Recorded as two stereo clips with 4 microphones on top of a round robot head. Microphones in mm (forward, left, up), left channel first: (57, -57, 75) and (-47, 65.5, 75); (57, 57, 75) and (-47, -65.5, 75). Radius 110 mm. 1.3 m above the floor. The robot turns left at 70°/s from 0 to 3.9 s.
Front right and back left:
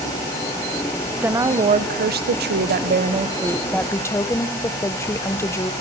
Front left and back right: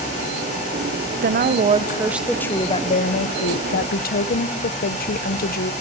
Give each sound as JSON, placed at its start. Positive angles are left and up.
{"t": 1.2, "sound": "a woman speaking", "azimuth_deg": -145, "distance_m": 1.1}